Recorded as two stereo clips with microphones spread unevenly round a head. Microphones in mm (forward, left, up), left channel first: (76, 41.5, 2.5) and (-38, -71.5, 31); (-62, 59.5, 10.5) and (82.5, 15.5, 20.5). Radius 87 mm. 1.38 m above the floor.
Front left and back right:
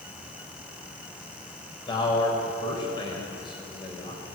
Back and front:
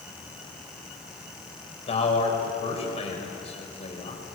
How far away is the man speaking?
About 6 m.